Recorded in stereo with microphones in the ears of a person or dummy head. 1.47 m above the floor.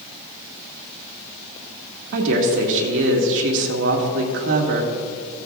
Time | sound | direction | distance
2.1 | a woman speaking | 70° right (ahead or behind) | 1.9 m